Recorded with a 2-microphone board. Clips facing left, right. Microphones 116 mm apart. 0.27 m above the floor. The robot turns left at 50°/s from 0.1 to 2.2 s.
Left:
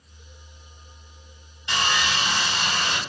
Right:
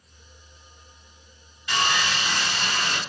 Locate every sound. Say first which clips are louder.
1.7 s sawing: even; 25° left (ahead or behind), 1.6 m; by 3.0 s 35° left (ahead or behind), 1.6 m